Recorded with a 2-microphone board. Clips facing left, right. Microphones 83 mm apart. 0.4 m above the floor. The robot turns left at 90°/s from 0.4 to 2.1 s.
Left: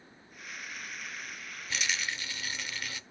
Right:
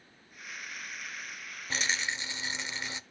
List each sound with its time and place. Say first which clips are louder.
1.7 s a rattle: right 2 dB; 100° right, 0.5 m; by 3.0 s 140° right, 0.5 m